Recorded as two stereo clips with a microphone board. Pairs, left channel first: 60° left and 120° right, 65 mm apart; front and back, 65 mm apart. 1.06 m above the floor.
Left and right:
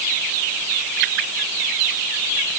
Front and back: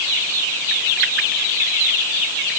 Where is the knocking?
I don't hear knocking.